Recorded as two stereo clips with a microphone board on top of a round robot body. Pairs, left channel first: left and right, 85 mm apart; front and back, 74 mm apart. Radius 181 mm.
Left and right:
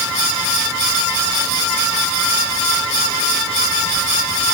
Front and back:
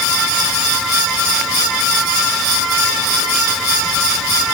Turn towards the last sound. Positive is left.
No sound to turn to.